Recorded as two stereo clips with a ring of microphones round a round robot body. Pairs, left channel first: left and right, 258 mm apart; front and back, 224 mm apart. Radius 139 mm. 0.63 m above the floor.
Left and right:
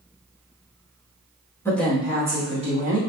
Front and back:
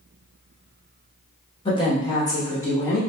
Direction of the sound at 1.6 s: 20° left.